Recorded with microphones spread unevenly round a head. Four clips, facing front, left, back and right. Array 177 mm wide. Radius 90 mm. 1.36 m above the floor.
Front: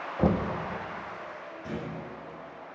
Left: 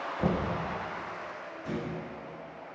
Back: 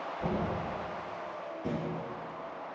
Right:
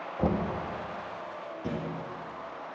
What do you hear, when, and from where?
0.2 s knocking: 15° right, 1.3 m
1.6 s a thud: 120° right, 5 m